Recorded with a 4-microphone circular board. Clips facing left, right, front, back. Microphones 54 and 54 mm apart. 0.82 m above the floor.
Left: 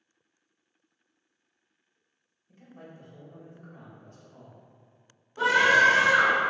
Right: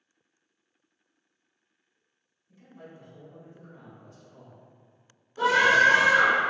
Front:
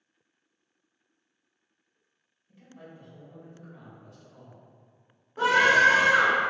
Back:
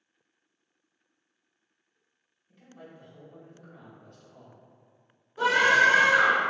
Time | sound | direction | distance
2.5 | a man speaking | 85° left | 0.8 m
5.4 | a scream | 10° left | 1.5 m